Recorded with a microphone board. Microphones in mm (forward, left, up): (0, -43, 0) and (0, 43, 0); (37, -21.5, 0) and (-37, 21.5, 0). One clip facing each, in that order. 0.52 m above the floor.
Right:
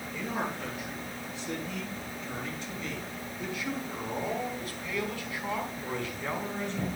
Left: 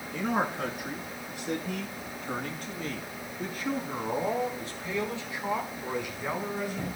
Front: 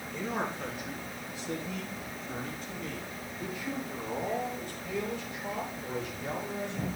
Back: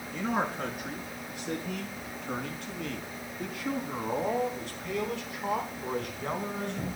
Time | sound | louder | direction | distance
0.1 | a man speaking | left 5 dB, back 4 dB | 115° left | 5.5 m